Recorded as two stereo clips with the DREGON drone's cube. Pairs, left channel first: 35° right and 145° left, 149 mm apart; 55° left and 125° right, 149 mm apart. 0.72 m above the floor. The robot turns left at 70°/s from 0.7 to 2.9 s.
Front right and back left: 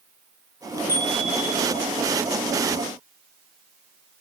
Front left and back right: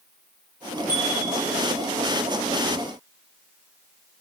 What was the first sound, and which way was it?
A bicycle bell, 100° right.